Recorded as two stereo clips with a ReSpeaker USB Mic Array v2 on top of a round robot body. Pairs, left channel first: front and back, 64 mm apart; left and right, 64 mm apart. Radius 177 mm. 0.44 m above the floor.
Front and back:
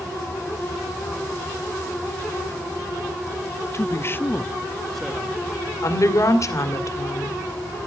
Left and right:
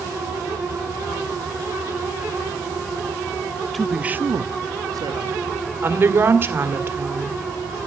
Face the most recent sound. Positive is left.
turn(degrees=-35)